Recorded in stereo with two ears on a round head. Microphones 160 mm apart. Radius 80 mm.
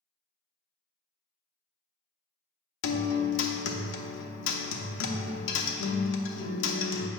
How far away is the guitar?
About 0.7 m.